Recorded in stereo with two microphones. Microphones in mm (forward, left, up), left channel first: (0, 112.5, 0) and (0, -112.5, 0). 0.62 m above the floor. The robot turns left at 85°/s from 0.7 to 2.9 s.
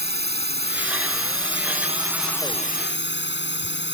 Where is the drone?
50° right; by 3.9 s 125° left.